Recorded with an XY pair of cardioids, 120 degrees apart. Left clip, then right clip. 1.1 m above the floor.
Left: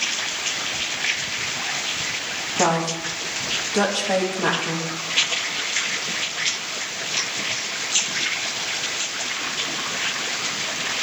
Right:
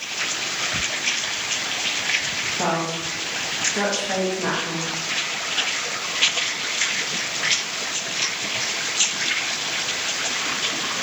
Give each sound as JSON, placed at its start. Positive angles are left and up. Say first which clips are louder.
{"t": 2.6, "sound": "a woman speaking", "louder": "left 2 dB", "azimuth_deg": 35, "distance_m": 1.7}